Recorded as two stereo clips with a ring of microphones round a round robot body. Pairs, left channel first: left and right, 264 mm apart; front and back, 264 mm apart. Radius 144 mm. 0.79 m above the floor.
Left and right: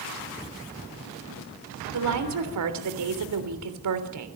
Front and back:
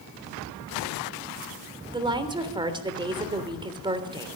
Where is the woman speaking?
105° right, 3 m.